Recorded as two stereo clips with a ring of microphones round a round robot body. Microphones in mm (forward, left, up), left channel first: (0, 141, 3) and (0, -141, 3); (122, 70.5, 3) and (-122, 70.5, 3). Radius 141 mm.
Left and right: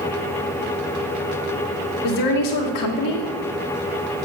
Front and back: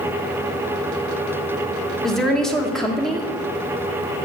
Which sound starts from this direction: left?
A woman speaking, at 2.0 s.